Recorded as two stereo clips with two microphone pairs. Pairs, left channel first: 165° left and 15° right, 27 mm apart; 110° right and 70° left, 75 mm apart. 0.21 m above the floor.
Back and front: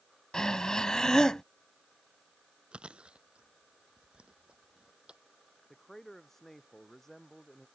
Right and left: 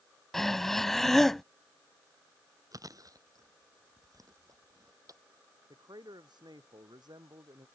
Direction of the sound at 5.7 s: 90° left.